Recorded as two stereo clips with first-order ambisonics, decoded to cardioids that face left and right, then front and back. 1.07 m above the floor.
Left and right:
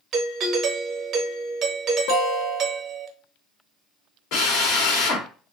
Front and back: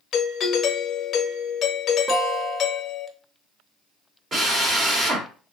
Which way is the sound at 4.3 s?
115° left.